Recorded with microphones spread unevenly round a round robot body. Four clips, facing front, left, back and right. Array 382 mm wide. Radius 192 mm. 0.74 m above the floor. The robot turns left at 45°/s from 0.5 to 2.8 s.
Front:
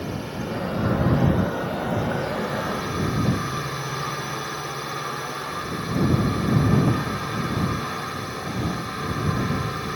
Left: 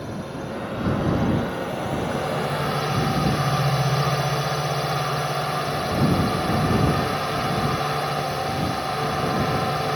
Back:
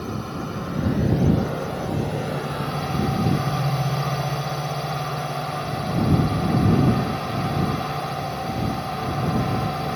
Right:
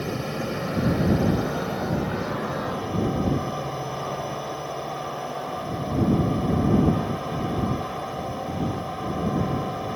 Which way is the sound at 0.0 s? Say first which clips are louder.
Right 3 dB, even; 120° right.